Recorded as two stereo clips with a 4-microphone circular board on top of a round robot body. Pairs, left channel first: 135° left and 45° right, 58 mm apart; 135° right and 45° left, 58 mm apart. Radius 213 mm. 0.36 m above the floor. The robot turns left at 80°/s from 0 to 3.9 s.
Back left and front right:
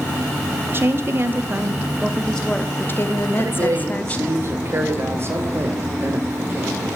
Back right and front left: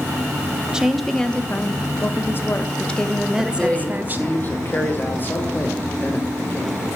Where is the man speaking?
45° right, 2 m; by 6.8 s 85° right, 2 m.